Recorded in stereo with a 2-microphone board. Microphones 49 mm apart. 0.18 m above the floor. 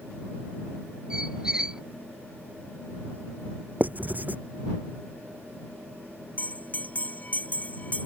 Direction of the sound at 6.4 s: 35° left (ahead or behind).